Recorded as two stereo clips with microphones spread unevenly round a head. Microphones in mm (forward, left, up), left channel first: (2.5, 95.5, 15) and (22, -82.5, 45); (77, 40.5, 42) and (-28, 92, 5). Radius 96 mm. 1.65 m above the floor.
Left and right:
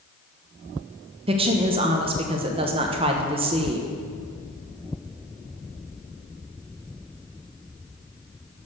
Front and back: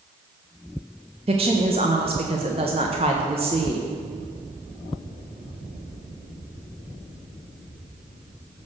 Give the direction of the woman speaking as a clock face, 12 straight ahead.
5 o'clock.